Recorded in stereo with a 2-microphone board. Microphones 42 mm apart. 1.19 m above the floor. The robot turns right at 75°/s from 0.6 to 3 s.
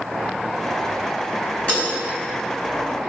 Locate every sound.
1.7 s breaking glass: 40° left (ahead or behind), 4.5 m; by 1.9 s 25° left (ahead or behind), 4.5 m